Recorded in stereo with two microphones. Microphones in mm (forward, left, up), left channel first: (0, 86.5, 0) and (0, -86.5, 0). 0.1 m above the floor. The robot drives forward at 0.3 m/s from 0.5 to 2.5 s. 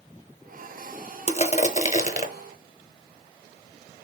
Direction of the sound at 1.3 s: 35° left (ahead or behind).